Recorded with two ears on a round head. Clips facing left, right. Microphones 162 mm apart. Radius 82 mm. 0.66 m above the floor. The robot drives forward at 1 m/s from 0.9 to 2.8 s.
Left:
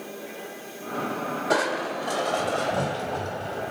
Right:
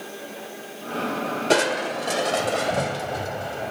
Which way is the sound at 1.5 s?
35° right (ahead or behind).